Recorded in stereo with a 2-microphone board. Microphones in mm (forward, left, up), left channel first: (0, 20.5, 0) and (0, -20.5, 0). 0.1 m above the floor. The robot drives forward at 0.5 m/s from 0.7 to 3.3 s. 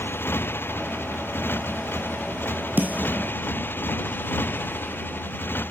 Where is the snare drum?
45° right (ahead or behind); by 3.3 s 40° right (ahead or behind).